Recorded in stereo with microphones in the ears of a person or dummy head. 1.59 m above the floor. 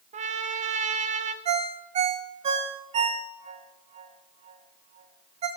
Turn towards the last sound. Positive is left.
turn(degrees=-35)  # may be behind; listen again after turning